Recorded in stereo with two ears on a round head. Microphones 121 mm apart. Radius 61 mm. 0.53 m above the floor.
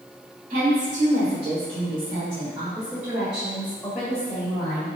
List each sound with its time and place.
0.5 s a woman speaking: 60° right (ahead or behind), 1.5 m; by 4.9 s 10° left (ahead or behind), 2.5 m